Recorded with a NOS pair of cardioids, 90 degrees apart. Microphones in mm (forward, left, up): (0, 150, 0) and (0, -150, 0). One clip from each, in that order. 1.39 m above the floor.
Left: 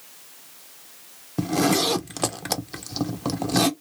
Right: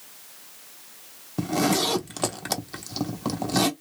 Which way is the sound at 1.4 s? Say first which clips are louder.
Left 2 dB; 10° left.